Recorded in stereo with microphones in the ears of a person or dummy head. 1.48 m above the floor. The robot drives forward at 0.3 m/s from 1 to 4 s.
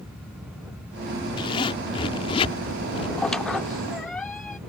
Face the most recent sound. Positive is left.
turn(degrees=0)  # may be behind; listen again after turning